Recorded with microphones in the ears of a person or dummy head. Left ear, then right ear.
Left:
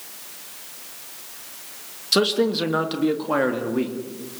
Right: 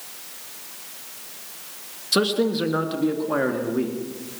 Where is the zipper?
I don't hear a zipper.